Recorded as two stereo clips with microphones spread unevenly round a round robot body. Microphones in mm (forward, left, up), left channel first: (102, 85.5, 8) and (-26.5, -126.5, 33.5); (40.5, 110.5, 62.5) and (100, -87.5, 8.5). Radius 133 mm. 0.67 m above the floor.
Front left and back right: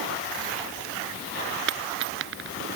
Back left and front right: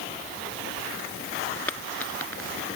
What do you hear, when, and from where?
1.7 s a dropped coin: 170° right